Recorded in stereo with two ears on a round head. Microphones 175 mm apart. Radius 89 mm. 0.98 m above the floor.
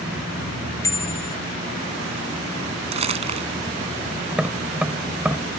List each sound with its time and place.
0.8 s a bicycle bell: 15° left (ahead or behind)
2.9 s crumpling: 30° right (ahead or behind)
4.3 s tapping: 5° right (ahead or behind)